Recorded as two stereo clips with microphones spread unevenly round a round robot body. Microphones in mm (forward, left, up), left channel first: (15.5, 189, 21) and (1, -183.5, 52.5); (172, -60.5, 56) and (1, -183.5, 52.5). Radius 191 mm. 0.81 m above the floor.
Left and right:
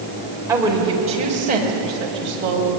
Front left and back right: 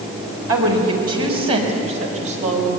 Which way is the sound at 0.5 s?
175° right.